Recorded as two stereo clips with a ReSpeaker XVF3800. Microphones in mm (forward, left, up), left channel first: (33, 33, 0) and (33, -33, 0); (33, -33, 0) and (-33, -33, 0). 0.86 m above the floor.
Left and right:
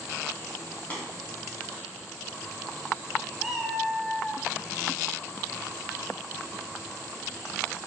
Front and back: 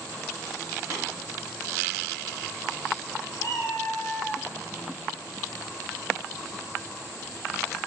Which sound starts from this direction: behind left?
Tapping, at 0.9 s.